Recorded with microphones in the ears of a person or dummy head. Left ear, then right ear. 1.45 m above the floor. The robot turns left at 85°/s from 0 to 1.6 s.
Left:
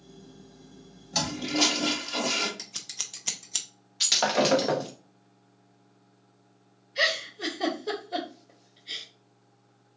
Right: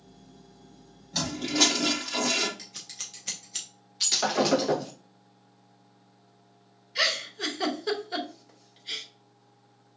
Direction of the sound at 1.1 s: 15° left.